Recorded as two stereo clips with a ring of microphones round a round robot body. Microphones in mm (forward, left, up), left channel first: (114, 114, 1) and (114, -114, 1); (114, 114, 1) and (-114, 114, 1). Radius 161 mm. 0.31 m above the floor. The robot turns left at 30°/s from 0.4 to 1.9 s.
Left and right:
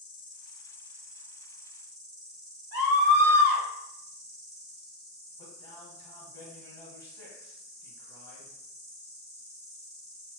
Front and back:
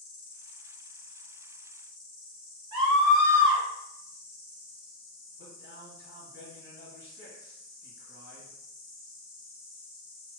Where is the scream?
130° left, 1.6 m.